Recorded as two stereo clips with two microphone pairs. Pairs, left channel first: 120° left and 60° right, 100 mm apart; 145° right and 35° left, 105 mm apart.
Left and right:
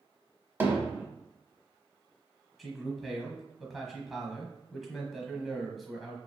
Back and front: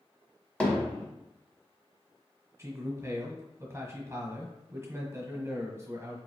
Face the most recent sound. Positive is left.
turn(degrees=25)